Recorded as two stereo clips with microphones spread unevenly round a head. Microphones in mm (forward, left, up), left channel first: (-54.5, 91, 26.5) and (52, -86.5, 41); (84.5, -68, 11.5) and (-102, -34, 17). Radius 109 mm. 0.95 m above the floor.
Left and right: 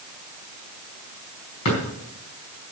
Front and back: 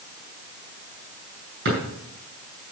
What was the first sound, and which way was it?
A drawer, 125° left.